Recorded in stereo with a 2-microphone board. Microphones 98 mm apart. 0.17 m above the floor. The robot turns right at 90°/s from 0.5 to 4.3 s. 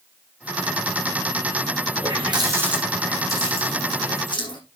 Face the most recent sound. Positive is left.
turn(degrees=50)  # may be behind; listen again after turning